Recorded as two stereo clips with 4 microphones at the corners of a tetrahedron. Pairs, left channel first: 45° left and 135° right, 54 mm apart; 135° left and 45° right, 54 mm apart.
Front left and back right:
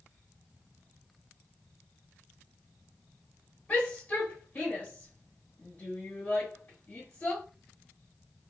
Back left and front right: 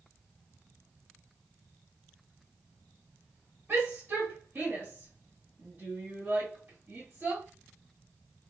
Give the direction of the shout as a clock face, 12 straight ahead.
12 o'clock.